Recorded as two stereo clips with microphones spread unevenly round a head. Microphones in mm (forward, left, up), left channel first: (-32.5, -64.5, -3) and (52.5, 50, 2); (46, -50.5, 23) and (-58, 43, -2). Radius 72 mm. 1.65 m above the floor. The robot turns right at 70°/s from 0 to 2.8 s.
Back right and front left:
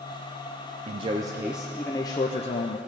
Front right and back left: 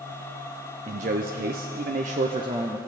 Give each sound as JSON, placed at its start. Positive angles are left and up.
{"t": 0.9, "sound": "a man speaking", "azimuth_deg": 85, "distance_m": 0.5}